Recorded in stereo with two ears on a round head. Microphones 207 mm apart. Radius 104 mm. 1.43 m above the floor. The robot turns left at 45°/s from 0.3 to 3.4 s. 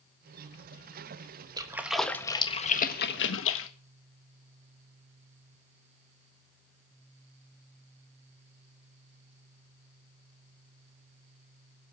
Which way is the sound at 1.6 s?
20° right (ahead or behind).